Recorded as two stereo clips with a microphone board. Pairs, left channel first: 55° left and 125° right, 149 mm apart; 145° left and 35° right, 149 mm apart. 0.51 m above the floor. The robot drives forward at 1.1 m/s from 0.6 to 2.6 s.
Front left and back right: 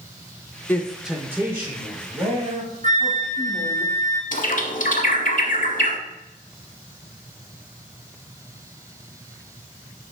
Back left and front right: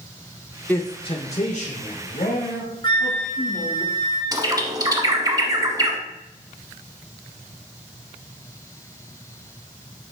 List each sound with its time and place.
0.7 s a man speaking: 95° left, 0.6 m; by 3.8 s 175° left, 2 m
2.8 s a flute: 155° right, 2 m
4.3 s a bird: 30° left, 0.9 m